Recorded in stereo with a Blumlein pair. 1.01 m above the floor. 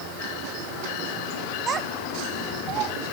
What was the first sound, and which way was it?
A child speaking, 20° right.